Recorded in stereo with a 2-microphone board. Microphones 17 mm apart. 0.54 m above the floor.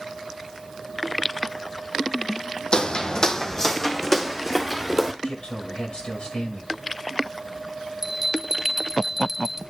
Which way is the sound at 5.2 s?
65° left (ahead or behind).